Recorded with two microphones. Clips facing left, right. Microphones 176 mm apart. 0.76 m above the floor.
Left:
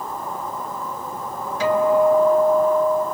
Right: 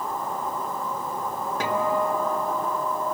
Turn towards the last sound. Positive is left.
turn(degrees=-55)  # may be behind; listen again after turning